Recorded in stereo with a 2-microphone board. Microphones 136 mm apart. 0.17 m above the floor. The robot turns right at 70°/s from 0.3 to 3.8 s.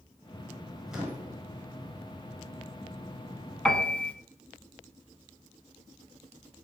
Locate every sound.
0.9 s a microwave: straight behind, 2 m; by 1.4 s 145° right, 2 m
3.6 s a piano: 5° left (ahead or behind), 0.9 m; by 4.1 s 10° left (ahead or behind), 0.9 m